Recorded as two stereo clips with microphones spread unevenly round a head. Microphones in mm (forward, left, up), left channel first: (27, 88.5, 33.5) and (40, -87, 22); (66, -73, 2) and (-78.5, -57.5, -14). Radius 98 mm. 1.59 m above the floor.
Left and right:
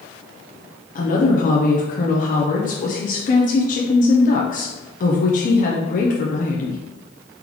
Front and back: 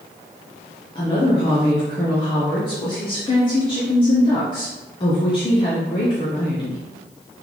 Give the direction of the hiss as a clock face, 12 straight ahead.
No hiss in this recording.